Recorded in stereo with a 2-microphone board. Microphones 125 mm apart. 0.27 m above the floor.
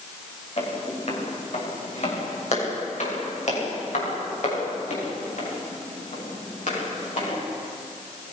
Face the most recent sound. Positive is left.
turn(degrees=70)  # may be behind; listen again after turning